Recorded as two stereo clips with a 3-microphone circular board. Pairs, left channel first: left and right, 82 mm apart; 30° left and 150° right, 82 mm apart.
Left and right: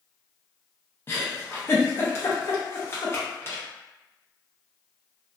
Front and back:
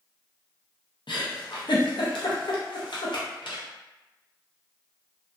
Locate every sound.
1.1 s a giggle: 35° left, 0.6 m